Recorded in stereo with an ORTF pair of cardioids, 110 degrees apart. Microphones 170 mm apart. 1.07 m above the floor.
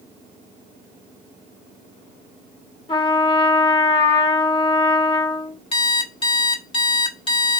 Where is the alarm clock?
30° left, 0.8 m.